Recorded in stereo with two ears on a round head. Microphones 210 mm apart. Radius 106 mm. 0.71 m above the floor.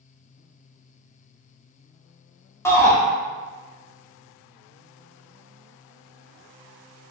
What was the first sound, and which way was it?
A shout, 10° left (ahead or behind).